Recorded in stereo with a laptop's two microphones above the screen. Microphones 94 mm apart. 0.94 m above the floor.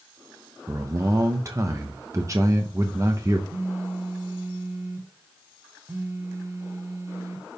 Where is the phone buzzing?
30° right (ahead or behind), 0.5 m.